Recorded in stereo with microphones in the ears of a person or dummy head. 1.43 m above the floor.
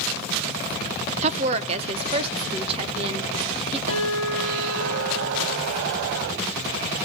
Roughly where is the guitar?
Right.